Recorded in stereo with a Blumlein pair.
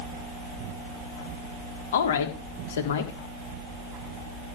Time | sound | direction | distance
1.9 | a woman speaking | 60° left | 4 m